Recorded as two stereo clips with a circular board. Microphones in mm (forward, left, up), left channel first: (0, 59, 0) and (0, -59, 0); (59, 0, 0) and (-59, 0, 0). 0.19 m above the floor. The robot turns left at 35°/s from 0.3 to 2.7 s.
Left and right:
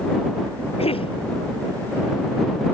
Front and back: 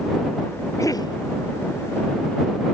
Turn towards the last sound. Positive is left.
turn(degrees=-5)